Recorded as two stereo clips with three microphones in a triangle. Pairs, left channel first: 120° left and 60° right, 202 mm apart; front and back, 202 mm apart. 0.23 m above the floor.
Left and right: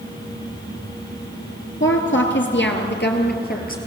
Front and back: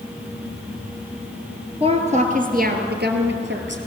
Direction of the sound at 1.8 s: 120° left.